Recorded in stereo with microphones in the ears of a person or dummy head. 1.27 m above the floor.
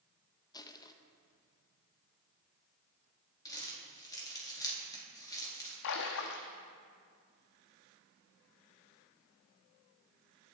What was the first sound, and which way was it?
Crushing, 20° left (ahead or behind).